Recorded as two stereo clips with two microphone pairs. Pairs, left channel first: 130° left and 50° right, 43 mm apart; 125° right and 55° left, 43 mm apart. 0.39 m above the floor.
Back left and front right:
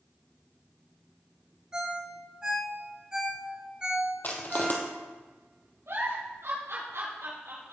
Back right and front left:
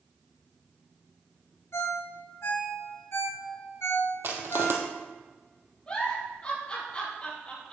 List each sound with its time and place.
1.7 s a ringtone: 120° right, 4.5 m
4.2 s crushing: 80° left, 2 m
5.9 s a giggle: 60° right, 4.5 m